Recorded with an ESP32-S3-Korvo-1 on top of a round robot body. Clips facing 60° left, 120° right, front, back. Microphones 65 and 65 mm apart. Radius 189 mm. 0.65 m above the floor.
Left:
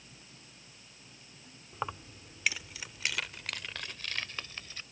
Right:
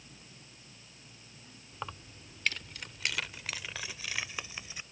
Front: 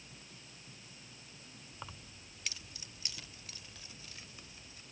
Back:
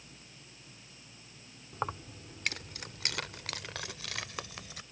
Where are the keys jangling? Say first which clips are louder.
Left 5 dB, back 15 dB; 130° left; by 4.8 s 165° left.